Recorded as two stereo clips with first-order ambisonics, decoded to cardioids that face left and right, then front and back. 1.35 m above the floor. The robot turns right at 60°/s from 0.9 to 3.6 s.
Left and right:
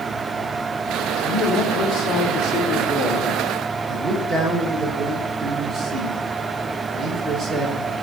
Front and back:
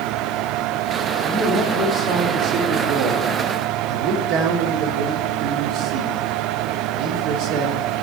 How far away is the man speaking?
About 1.7 m.